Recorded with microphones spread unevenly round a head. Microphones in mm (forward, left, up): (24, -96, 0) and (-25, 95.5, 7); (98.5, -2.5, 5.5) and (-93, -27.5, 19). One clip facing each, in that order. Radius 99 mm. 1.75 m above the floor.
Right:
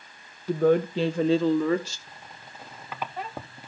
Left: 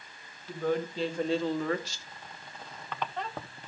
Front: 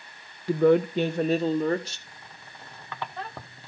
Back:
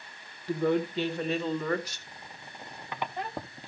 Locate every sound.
0.5 s a woman speaking: 20° right, 0.7 m; by 2.0 s 60° right, 1.2 m
2.1 s a squeak: 150° right, 0.7 m